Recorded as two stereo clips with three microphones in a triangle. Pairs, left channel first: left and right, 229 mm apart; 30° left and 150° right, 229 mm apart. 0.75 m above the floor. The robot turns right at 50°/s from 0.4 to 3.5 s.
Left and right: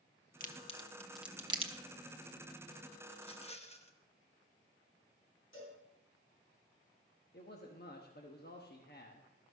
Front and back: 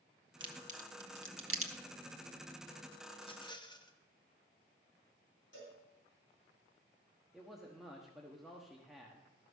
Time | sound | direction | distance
0.4 | a crack | 140° left | 0.9 m
3.1 | a rattle | 60° left | 0.9 m
5.5 | a cowbell | 65° left | 4.5 m
7.3 | a man speaking | 120° left | 1.0 m